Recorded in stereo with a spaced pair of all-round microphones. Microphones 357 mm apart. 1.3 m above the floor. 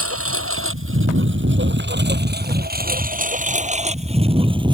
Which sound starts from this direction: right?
A lawn mower, at 0.0 s.